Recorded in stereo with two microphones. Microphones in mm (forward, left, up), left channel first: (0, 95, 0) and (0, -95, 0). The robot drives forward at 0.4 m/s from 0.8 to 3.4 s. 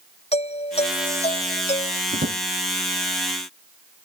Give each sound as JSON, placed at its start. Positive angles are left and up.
{"t": 0.3, "sound": "a doorbell", "side_deg": 35}
{"t": 2.1, "sound": "a drawer", "side_deg": -55}